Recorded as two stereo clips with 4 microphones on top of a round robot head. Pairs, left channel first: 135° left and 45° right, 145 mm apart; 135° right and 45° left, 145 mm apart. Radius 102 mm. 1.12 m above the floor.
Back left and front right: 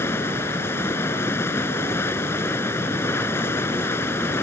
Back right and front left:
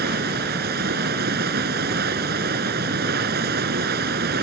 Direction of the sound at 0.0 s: 60° left.